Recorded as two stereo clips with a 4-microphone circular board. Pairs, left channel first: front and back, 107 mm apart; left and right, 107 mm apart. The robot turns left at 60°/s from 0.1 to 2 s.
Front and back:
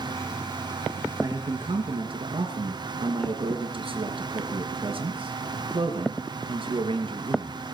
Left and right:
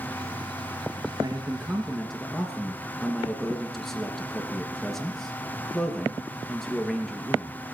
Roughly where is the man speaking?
Behind right.